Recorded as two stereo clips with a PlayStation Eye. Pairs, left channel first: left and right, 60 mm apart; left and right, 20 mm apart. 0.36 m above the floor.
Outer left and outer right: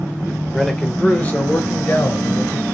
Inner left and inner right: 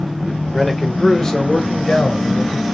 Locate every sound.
0.5 s a man speaking: centre (ahead or behind), 0.8 m; by 2.6 s 55° left (ahead or behind), 1.4 m